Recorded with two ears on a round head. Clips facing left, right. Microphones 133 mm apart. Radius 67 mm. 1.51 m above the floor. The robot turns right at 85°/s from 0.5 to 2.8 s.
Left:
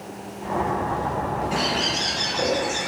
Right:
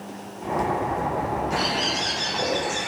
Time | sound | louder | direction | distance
1.5 | a bird | left 1 dB | 35° left | 1.0 m